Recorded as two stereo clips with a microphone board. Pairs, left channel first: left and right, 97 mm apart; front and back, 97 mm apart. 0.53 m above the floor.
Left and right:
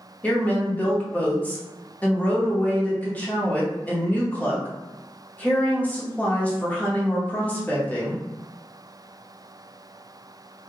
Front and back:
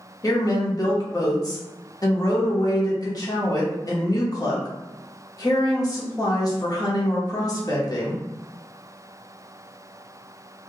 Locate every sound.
0.2 s a woman speaking: 25° left, 1.0 m